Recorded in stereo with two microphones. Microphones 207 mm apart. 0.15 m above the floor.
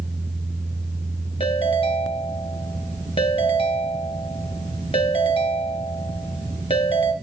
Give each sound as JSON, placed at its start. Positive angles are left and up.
{"t": 1.4, "sound": "a ringtone", "side_deg": 25, "distance_m": 1.7}